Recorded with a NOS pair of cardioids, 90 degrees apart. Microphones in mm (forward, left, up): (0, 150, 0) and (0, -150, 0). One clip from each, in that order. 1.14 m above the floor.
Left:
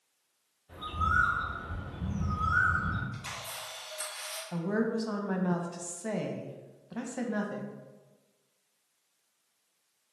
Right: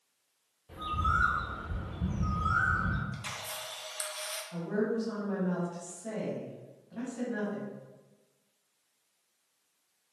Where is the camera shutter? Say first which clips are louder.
Right 1 dB; 25° right, 0.9 m.